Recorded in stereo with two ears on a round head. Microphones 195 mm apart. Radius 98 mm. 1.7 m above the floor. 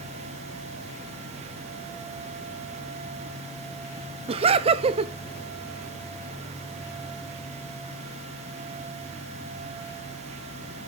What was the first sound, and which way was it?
Laughter, 25° right (ahead or behind).